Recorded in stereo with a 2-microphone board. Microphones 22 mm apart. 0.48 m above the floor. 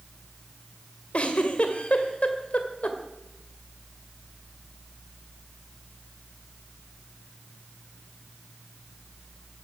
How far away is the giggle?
About 1.9 m.